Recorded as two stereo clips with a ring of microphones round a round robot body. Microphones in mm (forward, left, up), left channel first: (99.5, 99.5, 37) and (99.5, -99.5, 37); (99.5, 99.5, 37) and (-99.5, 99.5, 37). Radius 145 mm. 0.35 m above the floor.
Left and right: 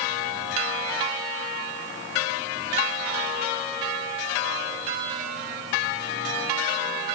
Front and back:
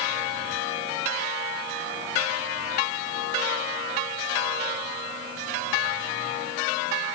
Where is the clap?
No clap in this recording.